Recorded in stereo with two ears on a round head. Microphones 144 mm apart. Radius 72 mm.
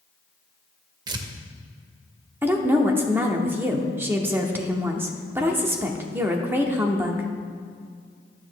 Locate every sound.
1.1 s tearing paper: 25° right (ahead or behind), 0.7 m
2.4 s a woman speaking: 15° right (ahead or behind), 0.8 m